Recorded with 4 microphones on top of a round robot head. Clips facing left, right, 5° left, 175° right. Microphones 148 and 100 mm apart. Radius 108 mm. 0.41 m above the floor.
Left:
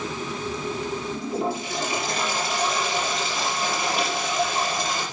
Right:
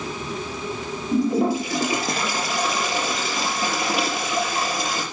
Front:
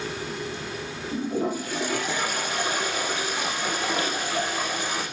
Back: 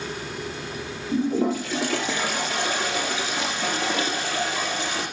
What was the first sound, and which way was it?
A toilet flushing, 80° right.